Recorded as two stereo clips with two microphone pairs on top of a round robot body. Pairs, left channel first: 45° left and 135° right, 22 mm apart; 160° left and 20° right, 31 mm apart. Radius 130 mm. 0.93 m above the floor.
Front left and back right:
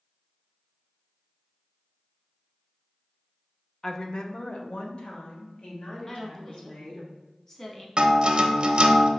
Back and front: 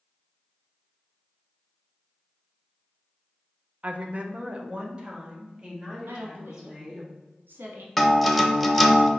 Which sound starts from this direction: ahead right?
A woman speaking, at 6.1 s.